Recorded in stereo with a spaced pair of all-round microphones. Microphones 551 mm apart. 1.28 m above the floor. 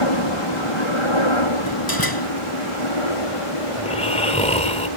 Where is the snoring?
10° left (ahead or behind).